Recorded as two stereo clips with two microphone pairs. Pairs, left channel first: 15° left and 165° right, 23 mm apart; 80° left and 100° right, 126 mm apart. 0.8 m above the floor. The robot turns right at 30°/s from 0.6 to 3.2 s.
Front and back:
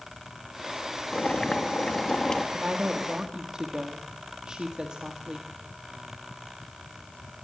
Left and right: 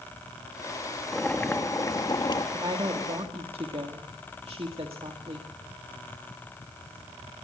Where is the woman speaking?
145° right, 1.7 m; by 5.5 s 125° right, 1.7 m.